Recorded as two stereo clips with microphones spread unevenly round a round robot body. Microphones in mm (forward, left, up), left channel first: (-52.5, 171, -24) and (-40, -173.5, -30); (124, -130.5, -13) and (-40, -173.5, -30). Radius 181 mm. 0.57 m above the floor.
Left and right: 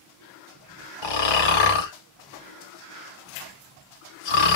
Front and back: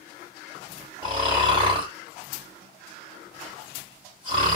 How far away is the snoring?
About 1.2 m.